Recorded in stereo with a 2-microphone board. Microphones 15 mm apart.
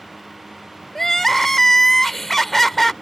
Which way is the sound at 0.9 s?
25° left (ahead or behind).